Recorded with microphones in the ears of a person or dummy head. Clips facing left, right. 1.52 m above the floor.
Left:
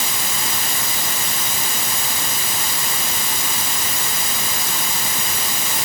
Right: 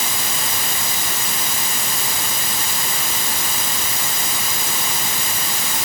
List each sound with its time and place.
Only background noise.